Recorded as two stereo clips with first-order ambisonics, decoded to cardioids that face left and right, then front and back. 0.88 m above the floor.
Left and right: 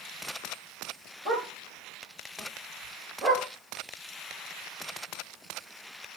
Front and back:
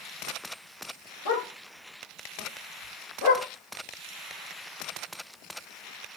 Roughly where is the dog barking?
Ahead right.